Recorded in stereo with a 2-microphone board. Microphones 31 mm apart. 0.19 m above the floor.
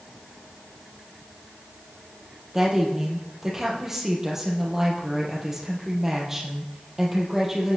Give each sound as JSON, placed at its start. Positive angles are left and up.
{"t": 2.5, "sound": "a woman speaking", "side_deg": -10, "distance_m": 5.5}